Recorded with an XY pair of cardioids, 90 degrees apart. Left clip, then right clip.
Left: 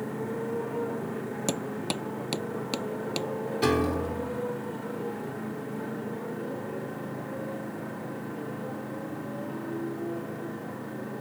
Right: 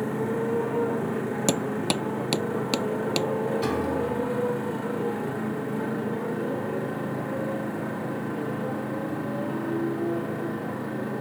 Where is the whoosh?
I don't hear a whoosh.